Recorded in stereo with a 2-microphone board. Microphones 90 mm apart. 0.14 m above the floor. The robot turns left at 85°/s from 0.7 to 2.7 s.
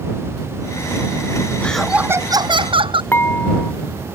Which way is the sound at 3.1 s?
25° left (ahead or behind).